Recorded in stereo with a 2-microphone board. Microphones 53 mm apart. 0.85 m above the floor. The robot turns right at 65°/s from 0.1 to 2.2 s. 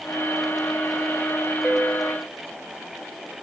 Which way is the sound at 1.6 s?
15° right.